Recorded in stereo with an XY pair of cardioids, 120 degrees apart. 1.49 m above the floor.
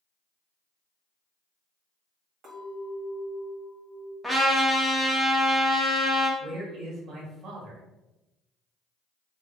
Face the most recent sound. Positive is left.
turn(degrees=-50)